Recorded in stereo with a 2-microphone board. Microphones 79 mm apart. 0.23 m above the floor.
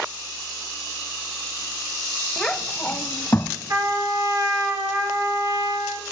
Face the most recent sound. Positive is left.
turn(degrees=-45)  # may be behind; listen again after turning